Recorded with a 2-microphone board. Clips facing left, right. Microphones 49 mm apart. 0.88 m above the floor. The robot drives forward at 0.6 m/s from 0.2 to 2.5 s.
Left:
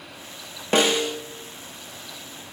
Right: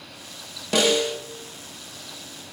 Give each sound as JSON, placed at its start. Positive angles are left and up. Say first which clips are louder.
{"t": 0.7, "sound": "a snare drum", "louder": "even", "side_deg": 35, "distance_m": 0.5}